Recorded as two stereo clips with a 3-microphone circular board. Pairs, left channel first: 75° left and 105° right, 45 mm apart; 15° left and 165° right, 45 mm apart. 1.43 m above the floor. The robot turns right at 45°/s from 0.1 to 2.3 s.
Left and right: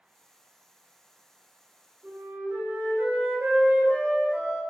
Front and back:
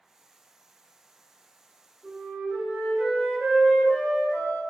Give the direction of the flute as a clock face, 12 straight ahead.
3 o'clock.